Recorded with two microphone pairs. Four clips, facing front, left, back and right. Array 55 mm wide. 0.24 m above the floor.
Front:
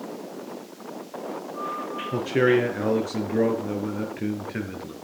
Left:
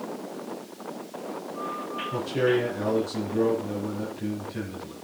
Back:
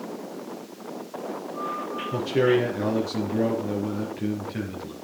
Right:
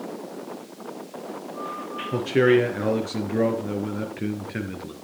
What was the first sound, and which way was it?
A man speaking, 55° right.